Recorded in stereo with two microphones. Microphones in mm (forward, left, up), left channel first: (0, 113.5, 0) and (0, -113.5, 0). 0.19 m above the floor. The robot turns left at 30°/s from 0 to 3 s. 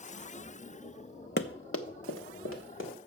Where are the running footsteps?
50° left (ahead or behind), 0.5 m; by 2.9 s 60° left (ahead or behind), 2.5 m.